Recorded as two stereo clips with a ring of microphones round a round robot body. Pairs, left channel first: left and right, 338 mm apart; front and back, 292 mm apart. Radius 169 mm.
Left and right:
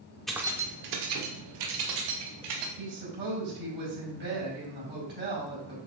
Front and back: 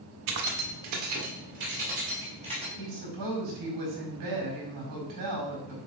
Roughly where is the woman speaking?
Behind right.